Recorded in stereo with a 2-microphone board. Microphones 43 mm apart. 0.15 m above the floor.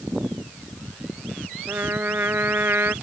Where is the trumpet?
60° right (ahead or behind).